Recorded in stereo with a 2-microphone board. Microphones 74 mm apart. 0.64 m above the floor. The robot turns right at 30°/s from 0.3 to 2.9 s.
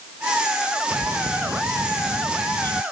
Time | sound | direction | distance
0.9 | a bird | 145° right | ?